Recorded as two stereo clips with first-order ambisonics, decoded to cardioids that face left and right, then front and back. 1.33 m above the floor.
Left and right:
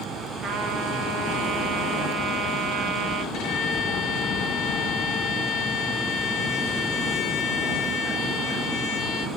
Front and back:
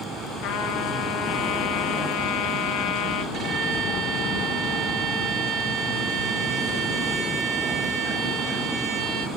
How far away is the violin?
About 6.5 m.